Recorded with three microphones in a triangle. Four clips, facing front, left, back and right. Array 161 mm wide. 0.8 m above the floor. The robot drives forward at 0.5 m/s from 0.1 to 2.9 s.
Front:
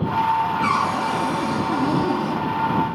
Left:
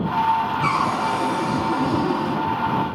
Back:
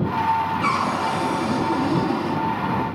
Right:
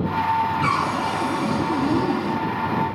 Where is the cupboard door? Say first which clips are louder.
Left 1 dB, front 1 dB; 170° left, 1.8 m; by 2.4 s 175° left, 2.5 m.